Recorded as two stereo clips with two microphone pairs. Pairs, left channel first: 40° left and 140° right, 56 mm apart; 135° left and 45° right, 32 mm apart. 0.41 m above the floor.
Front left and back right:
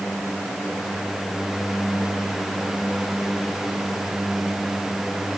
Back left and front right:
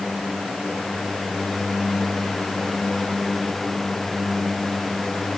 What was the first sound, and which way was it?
Only background noise.